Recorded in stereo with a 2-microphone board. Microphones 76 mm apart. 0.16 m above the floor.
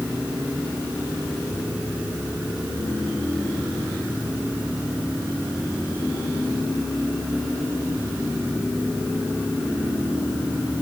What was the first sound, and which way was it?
Only background noise.